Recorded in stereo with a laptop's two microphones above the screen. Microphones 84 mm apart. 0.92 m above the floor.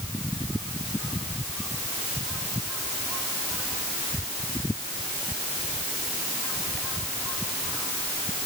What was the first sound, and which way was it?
Only background noise.